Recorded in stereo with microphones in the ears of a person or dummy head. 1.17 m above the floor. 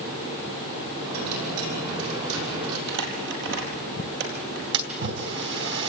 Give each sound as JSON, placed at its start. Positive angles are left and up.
{"t": 1.0, "sound": "a dropped coin", "side_deg": -80, "distance_m": 7.0}
{"t": 2.9, "sound": "crumpling", "side_deg": -65, "distance_m": 5.0}
{"t": 4.7, "sound": "a splash", "side_deg": -55, "distance_m": 3.0}